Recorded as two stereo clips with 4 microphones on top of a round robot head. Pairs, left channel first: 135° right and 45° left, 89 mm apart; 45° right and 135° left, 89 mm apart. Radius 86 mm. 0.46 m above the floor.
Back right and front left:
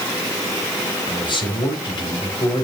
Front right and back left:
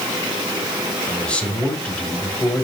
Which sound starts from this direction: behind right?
A man speaking, at 1.1 s.